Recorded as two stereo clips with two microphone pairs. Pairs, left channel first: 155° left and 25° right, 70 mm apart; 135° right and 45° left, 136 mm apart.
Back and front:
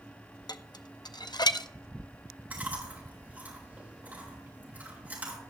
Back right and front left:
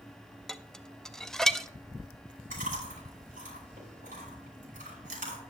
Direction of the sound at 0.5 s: 145° left.